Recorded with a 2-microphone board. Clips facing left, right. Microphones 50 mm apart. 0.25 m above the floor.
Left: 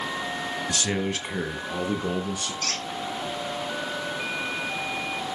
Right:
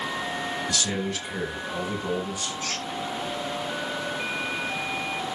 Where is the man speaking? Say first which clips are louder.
Left 1 dB; 30° left (ahead or behind), 1.6 m; by 2.5 s 55° left (ahead or behind), 3.5 m.